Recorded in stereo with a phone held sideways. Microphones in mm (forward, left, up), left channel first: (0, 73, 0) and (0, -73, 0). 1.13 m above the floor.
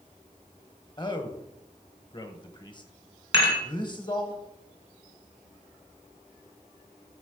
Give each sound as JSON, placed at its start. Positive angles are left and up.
{"t": 1.0, "sound": "a man speaking", "side_deg": 30, "distance_m": 0.9}
{"t": 3.3, "sound": "dishes clattering", "side_deg": 35, "distance_m": 2.5}